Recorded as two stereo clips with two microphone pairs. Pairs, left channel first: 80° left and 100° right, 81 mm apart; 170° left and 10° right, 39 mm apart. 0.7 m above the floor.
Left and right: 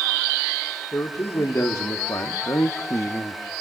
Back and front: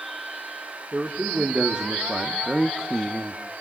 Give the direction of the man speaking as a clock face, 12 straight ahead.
11 o'clock.